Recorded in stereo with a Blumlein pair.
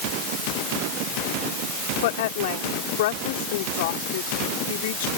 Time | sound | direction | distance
2.0 | a woman speaking | 55° left | ?